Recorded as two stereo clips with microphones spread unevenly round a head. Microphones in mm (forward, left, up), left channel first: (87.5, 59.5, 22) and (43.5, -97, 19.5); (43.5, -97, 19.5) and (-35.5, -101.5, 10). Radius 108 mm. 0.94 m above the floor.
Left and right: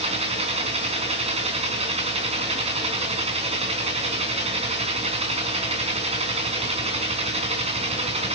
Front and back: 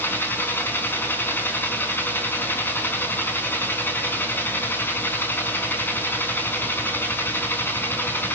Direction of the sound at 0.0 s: 55° right.